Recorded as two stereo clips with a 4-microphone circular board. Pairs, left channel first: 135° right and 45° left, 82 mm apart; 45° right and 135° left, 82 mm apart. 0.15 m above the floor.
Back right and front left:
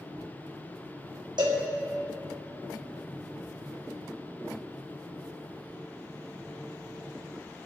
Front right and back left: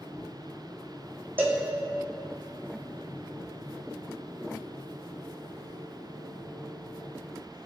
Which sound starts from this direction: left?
A cowbell, at 1.4 s.